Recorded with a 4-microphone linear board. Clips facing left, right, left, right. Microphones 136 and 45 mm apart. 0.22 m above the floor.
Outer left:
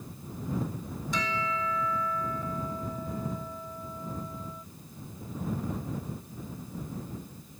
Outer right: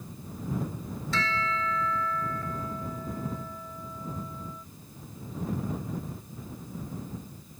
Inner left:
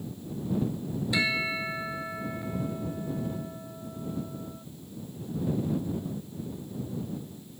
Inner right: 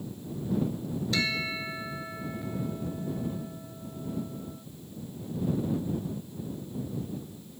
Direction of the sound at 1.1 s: 15° left (ahead or behind).